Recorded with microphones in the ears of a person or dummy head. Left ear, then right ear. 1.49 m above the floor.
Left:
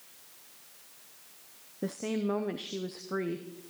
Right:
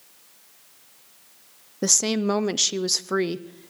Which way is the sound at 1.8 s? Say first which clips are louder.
Right 12 dB; 70° right (ahead or behind).